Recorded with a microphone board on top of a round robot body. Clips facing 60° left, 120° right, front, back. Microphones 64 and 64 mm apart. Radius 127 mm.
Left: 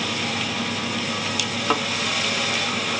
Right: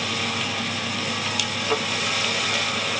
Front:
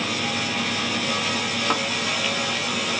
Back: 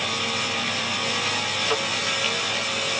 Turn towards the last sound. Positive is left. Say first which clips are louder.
# left 2 dB, front 1 dB
turn(degrees=60)